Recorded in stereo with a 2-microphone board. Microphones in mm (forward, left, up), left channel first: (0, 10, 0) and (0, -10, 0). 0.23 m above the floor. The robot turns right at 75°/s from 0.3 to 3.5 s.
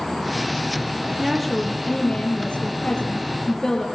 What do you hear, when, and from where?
1.2 s a woman speaking: 10° right, 6 m; by 3.9 s 165° left, 6 m